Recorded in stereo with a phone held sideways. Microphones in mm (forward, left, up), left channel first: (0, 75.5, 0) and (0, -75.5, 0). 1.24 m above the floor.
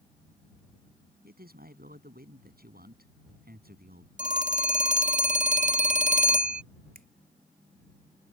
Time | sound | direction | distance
1.2 | a man speaking | 85° right | ?
4.2 | a phone ringing | 55° right (ahead or behind) | ?
7.0 | a finger snap | 70° right (ahead or behind) | ?